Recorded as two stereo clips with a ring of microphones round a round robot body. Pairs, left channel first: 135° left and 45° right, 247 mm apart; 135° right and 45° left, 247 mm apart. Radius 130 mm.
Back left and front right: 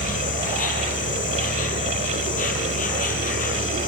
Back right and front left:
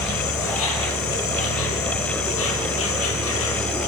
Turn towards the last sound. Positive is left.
turn(degrees=-170)